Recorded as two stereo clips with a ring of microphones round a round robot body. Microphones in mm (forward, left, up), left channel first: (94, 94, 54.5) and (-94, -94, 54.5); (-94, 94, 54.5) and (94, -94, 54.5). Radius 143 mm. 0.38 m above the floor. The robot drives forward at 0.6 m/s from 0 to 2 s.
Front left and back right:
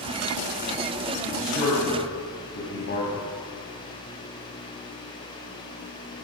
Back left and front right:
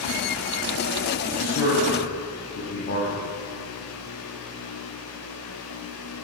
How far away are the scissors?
No scissors in this recording.